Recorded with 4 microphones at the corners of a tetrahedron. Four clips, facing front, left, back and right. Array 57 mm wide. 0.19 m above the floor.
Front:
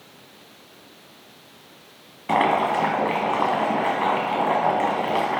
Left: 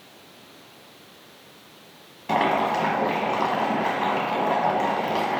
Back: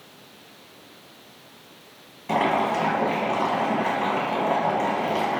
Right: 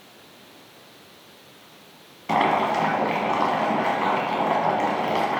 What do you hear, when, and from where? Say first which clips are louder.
2.3 s boiling: right 1 dB, front 2 dB; 15° right, 0.9 m